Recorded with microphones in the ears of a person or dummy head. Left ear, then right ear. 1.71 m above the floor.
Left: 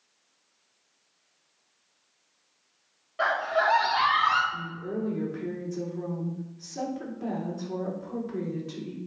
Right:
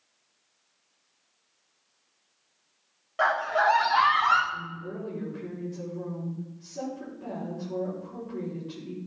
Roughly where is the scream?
Right.